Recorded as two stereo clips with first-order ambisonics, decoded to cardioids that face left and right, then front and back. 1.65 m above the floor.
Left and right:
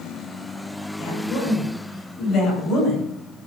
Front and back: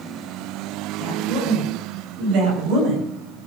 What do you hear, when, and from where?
1.0 s a woman speaking: 140° left, 8.5 m; by 3.1 s 155° left, 10.5 m